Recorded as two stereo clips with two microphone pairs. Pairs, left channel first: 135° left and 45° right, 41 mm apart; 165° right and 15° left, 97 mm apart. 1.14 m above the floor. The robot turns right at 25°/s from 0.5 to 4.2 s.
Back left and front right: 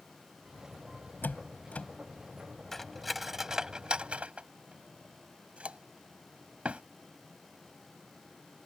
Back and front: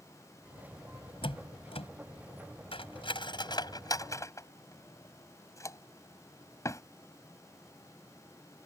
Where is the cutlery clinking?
145° right; by 6.8 s 110° right.